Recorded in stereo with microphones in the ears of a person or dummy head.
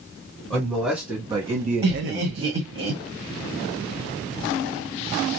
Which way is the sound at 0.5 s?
5° left (ahead or behind).